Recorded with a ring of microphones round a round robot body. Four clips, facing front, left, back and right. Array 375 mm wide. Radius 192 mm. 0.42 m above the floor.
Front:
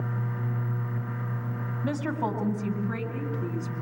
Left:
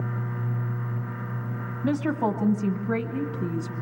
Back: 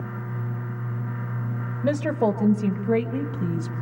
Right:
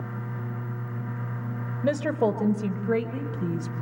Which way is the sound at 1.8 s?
135° right.